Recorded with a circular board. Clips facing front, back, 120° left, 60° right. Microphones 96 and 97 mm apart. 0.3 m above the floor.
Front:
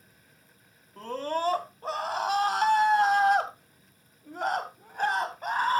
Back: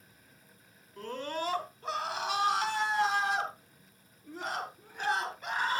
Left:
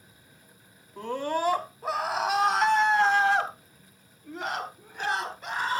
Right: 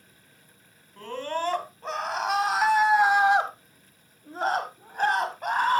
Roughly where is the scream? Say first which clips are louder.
Front 6 dB, left 2 dB; ahead left.